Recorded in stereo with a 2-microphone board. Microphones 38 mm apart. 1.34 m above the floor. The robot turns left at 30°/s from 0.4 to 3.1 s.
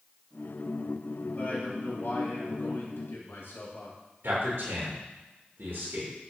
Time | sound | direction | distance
1.4 | a man speaking | 135° left | 3 m
4.2 | a man speaking | 75° right (ahead or behind) | 2.5 m